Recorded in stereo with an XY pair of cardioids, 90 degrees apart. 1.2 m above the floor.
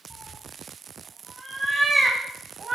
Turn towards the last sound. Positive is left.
turn(degrees=-40)